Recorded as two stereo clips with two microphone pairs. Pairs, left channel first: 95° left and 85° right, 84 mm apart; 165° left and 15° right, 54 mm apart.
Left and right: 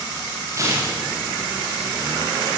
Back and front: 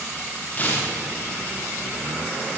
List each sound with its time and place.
0.5 s tearing paper: 135° right, 8.5 m